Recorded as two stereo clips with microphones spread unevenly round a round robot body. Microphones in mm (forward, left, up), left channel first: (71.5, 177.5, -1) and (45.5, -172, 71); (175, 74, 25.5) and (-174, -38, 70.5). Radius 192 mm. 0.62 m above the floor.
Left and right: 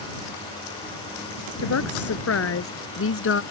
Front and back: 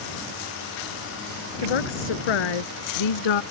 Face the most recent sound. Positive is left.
turn(degrees=30)